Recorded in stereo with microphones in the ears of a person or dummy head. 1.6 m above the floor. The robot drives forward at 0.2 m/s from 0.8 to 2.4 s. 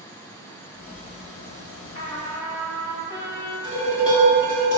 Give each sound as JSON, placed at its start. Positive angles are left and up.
{"t": 1.9, "sound": "a trumpet", "side_deg": 15, "distance_m": 0.5}
{"t": 3.6, "sound": "dishes clattering", "side_deg": 25, "distance_m": 1.7}